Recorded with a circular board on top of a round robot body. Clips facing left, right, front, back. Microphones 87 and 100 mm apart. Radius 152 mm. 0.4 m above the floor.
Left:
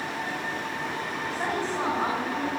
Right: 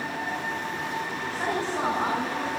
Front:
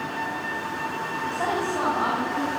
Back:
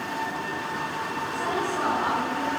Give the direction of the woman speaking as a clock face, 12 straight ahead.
12 o'clock.